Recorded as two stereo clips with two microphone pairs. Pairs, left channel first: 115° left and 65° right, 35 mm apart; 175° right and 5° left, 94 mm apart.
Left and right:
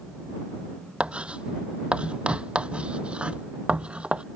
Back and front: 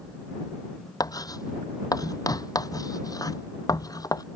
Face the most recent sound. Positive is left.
turn(degrees=-125)